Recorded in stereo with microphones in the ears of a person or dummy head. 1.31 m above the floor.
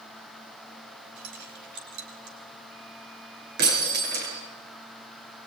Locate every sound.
1.2 s keys jangling: 65° right (ahead or behind), 5 m
3.6 s breaking glass: 55° right (ahead or behind), 7.5 m